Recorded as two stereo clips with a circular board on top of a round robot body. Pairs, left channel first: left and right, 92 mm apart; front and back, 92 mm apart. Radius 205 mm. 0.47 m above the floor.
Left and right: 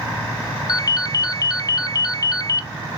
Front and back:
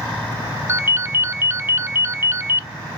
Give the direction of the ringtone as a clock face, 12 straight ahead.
8 o'clock.